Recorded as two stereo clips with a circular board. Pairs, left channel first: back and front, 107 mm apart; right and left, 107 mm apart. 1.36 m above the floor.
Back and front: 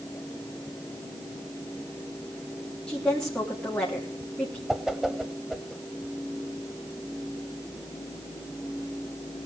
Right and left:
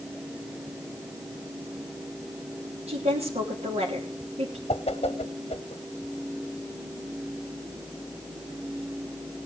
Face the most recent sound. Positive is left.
turn(degrees=-85)